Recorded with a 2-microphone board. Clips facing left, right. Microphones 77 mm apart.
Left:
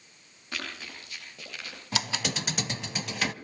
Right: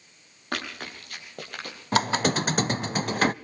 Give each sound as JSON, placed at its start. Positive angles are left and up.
{"t": 0.5, "sound": "running footsteps", "side_deg": -55, "distance_m": 7.5}
{"t": 1.9, "sound": "a squeak", "side_deg": -45, "distance_m": 0.5}